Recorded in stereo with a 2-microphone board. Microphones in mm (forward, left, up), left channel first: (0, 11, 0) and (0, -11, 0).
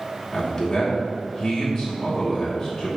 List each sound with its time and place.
0.3 s a man speaking: 20° left (ahead or behind), 2.5 m